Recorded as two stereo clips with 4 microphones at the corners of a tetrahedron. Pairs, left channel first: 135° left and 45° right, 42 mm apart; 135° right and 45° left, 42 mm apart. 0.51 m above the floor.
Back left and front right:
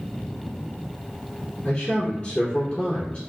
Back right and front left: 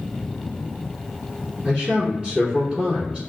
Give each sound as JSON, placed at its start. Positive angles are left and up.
{"t": 1.6, "sound": "a man speaking", "azimuth_deg": 100, "distance_m": 1.5}